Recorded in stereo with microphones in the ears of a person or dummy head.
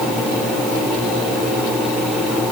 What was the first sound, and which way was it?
Only background noise.